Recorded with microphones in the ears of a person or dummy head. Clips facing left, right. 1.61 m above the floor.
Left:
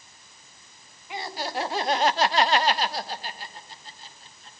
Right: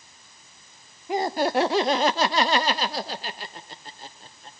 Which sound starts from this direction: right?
Laughter, at 1.1 s.